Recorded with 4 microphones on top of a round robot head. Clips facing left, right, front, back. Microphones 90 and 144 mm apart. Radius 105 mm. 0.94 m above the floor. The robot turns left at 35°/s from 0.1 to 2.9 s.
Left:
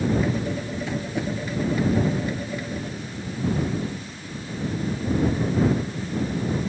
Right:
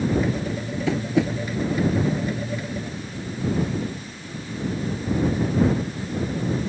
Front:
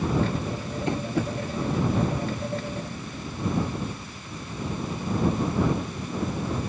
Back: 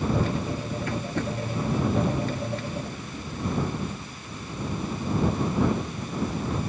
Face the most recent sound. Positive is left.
turn(degrees=-145)